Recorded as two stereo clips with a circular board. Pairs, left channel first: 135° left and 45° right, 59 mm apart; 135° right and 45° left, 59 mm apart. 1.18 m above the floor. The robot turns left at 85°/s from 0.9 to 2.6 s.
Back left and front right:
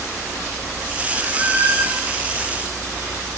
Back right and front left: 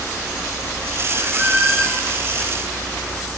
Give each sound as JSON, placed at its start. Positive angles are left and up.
{"t": 1.2, "sound": "a squeak", "azimuth_deg": 0, "distance_m": 0.8}